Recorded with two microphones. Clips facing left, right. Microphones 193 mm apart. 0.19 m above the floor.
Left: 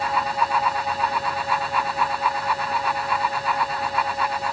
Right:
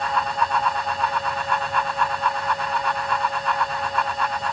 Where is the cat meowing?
No cat meowing in this recording.